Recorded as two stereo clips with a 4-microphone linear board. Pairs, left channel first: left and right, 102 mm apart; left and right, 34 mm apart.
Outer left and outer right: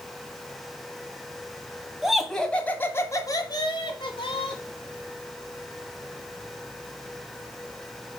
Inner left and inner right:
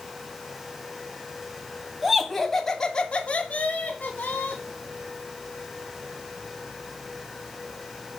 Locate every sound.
2.0 s laughter: 5° right (ahead or behind), 1.5 m; by 4.6 s 60° left (ahead or behind), 1.9 m